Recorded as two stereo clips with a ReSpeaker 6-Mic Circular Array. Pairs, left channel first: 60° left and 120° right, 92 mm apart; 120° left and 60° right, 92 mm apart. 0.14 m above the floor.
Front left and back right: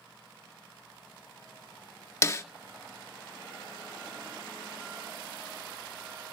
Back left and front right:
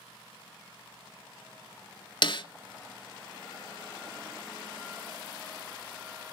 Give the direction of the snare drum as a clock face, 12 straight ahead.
8 o'clock.